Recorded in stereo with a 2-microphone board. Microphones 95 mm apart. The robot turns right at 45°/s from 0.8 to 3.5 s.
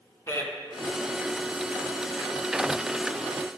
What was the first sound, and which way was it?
A man speaking, 35° left (ahead or behind).